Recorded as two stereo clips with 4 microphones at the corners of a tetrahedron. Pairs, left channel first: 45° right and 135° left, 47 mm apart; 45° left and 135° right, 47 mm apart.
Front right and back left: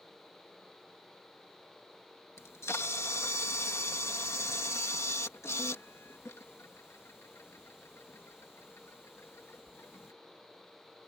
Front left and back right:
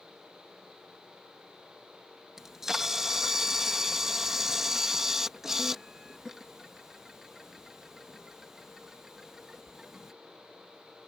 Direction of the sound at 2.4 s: 55° right.